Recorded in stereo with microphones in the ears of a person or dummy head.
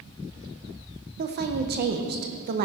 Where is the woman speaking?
45° right (ahead or behind), 0.7 m.